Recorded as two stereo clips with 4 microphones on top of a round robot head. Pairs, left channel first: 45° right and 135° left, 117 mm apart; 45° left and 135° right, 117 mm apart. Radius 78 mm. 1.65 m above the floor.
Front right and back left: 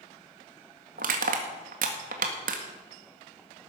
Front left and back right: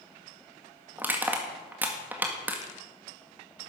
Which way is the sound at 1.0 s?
150° left.